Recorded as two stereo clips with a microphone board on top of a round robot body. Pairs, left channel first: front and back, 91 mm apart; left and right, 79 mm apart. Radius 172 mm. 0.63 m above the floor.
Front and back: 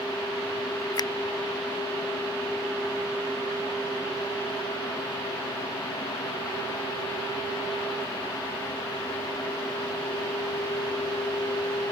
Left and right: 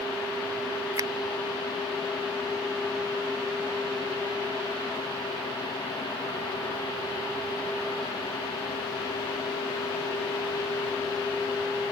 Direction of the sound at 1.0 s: 45° right.